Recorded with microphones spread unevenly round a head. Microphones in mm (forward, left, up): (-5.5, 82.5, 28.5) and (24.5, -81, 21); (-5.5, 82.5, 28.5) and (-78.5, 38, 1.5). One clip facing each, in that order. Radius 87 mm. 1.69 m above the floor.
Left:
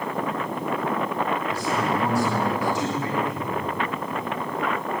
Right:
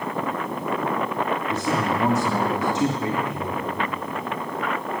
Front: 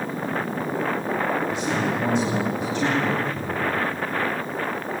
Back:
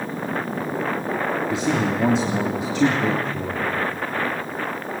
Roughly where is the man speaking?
Behind right.